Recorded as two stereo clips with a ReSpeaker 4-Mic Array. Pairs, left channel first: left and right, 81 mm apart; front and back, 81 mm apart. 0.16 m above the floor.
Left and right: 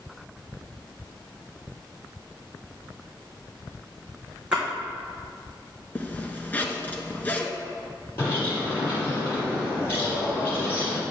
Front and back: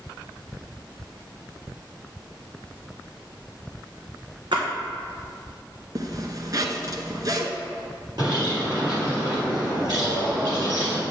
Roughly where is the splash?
Behind.